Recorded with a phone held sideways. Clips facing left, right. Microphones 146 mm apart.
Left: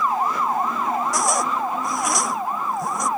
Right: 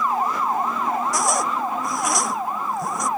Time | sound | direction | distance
1.1 | a zipper | centre (ahead or behind) | ?